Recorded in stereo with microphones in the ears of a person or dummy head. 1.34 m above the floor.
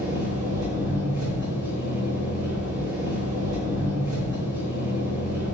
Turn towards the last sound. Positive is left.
turn(degrees=-45)  # may be behind; listen again after turning